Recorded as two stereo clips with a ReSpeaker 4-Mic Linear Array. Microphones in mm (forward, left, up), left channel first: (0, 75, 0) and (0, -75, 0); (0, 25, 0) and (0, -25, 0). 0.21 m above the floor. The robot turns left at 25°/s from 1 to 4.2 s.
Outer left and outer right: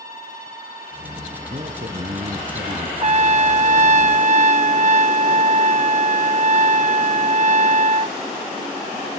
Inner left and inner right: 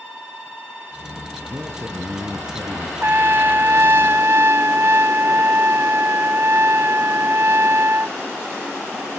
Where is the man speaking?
55° right, 2.5 m; by 2.9 s 90° right, 2.5 m.